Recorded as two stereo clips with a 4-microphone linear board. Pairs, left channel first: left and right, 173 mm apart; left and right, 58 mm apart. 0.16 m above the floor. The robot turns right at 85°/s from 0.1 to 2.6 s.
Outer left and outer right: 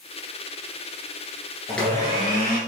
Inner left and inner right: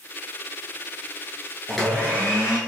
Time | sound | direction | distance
1.7 | a blender | straight ahead | 1.1 m